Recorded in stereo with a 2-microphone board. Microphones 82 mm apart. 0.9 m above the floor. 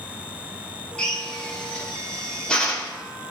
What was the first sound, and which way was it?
A drill, 10° left (ahead or behind).